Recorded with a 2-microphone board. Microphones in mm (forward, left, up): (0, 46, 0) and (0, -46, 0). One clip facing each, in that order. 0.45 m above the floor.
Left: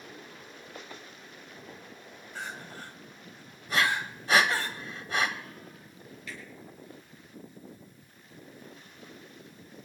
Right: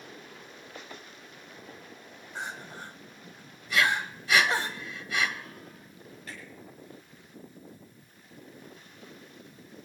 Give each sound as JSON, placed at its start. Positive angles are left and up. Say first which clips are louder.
{"t": 2.4, "sound": "crying", "louder": "right 2 dB", "side_deg": -20, "distance_m": 1.8}
{"t": 3.7, "sound": "breathing", "louder": "right 1 dB", "side_deg": 40, "distance_m": 1.4}
{"t": 6.3, "sound": "a finger snap", "louder": "left 1 dB", "side_deg": -40, "distance_m": 7.5}